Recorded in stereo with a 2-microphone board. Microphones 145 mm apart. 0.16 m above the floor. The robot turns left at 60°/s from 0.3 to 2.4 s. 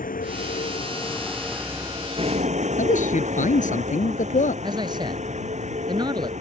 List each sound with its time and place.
0.0 s a vehicle: 75° left; by 6.4 s 55° right
2.8 s a man speaking: 60° left (ahead or behind)
4.6 s a man speaking: 30° right (ahead or behind)